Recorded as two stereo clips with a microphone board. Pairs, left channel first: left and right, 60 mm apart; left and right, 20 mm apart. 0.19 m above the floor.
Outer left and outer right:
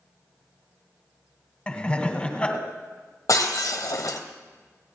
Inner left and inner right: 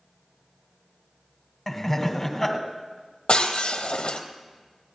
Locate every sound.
1.7 s laughter: 20° left (ahead or behind), 1.6 m
3.3 s breaking glass: 65° left (ahead or behind), 1.5 m